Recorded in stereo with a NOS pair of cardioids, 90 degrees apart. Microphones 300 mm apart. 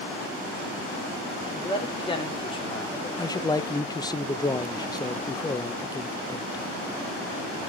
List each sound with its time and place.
1.5 s a man speaking: 15° left, 4.5 m
3.2 s a man speaking: 15° left, 1.2 m